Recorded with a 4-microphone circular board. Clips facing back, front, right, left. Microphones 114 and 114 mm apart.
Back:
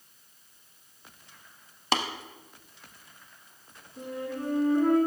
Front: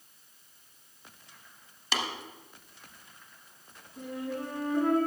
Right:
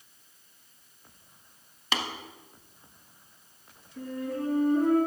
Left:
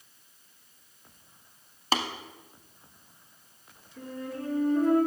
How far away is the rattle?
I don't hear a rattle.